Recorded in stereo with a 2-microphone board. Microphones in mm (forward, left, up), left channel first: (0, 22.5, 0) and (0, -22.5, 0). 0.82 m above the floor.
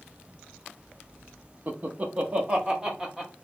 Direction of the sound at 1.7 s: 40° right (ahead or behind).